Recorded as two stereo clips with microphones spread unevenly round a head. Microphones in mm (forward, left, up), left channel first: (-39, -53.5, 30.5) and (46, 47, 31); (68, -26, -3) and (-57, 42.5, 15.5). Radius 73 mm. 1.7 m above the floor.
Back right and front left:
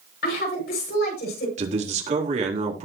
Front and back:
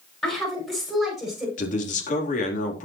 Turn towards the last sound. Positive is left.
turn(degrees=10)